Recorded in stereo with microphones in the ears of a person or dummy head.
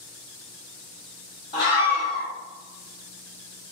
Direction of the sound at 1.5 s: 30° left (ahead or behind).